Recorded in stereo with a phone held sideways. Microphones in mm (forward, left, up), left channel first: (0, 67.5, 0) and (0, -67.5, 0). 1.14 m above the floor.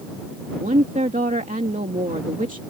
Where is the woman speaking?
75° right (ahead or behind).